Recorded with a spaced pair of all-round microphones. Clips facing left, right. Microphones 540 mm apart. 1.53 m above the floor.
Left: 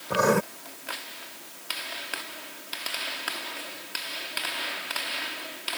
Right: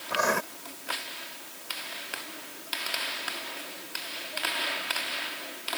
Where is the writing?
60° left (ahead or behind).